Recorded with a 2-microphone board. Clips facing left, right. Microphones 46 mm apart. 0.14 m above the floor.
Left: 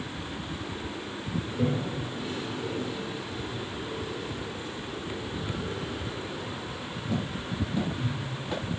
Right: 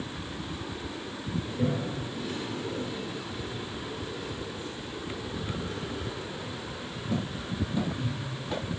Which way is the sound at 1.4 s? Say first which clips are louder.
Left 1 dB; 20° left (ahead or behind).